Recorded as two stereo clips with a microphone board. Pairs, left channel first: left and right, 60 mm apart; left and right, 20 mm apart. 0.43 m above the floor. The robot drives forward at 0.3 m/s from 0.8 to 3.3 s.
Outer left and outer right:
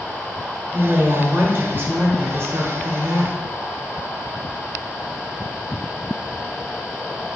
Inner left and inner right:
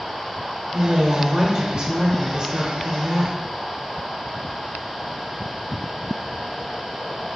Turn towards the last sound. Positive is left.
turn(degrees=-45)  # may be behind; listen again after turning